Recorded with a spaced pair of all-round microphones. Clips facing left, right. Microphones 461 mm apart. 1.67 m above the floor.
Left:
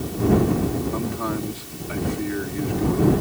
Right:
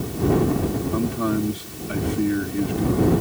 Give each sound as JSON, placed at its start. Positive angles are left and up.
{"t": 0.9, "sound": "a man speaking", "side_deg": -50}